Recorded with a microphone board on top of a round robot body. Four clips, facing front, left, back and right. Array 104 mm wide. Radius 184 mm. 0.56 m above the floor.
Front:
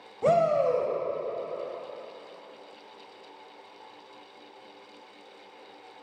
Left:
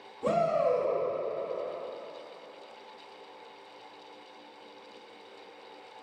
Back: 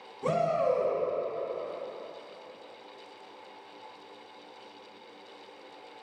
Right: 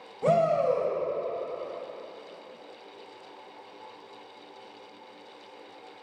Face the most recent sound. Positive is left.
turn(degrees=-25)